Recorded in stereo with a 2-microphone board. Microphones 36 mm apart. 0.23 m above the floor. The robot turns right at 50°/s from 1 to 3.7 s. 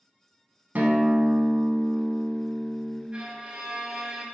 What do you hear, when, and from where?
0.8 s a guitar: 105° right, 0.5 m; by 3.0 s 5° right, 0.5 m
3.1 s a violin: 30° right (ahead or behind), 0.6 m; by 4.2 s 25° right (ahead or behind), 0.6 m